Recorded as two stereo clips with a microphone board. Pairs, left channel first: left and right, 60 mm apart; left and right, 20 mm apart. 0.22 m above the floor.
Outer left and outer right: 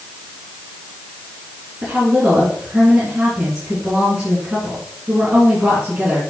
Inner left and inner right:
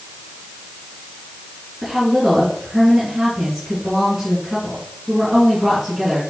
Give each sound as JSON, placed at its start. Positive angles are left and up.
{"t": 1.8, "sound": "a woman speaking", "side_deg": -15, "distance_m": 2.5}